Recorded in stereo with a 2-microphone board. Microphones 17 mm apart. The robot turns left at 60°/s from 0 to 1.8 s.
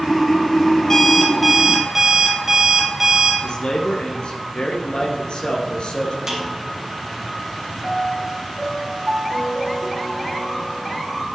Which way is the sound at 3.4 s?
60° left (ahead or behind).